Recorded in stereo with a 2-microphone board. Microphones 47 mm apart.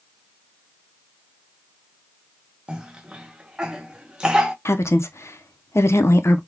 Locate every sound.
2.7 s a cough: 15° right (ahead or behind), 0.8 m
4.7 s a woman speaking: 70° left (ahead or behind), 0.7 m